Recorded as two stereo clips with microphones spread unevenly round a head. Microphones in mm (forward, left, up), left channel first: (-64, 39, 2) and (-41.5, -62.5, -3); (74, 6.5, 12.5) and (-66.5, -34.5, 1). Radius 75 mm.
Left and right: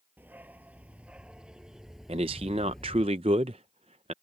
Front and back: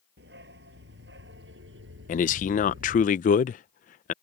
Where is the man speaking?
20° right.